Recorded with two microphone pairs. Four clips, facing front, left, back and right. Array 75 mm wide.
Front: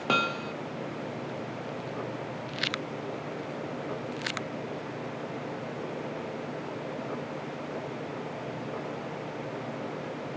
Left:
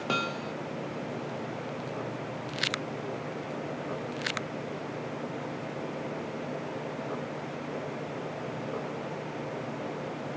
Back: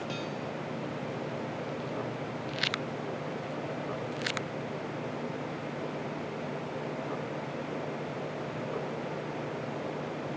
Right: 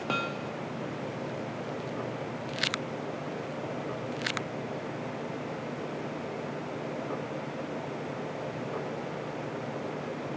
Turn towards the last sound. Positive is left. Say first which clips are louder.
# left 1 dB, front 8 dB
turn(degrees=5)